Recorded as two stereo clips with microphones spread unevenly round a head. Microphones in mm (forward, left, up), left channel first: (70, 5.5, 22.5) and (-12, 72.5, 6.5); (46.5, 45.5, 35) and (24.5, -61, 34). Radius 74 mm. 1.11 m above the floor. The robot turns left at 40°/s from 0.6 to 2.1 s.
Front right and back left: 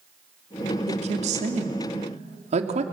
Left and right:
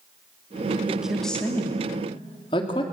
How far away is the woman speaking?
About 2.5 m.